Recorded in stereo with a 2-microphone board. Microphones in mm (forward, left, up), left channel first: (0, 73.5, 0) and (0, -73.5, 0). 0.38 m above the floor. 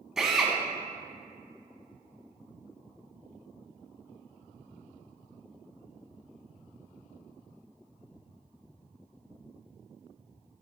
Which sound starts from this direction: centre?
A drill, at 0.2 s.